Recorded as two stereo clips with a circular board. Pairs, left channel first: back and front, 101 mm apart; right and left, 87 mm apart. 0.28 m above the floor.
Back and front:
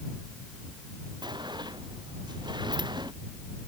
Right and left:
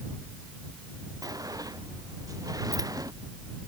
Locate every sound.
1.2 s a sliding door: 45° left